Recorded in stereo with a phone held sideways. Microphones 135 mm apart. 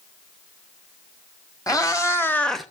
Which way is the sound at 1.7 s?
25° left (ahead or behind).